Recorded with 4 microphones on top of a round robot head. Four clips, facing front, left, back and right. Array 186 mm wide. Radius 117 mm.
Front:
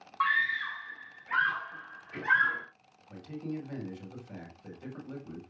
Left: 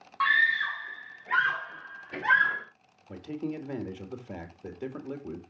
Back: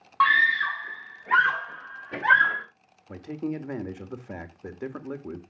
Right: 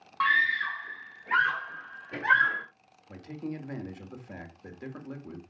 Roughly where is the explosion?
I don't hear an explosion.